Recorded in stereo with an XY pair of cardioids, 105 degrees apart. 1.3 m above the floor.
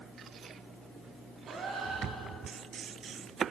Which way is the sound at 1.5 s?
55° right.